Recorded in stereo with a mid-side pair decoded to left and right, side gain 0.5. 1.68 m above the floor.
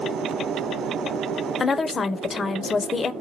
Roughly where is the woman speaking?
Ahead left.